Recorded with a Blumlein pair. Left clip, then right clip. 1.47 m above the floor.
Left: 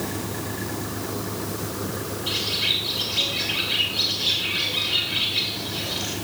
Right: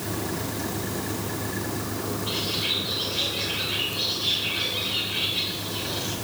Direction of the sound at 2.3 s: 65° left.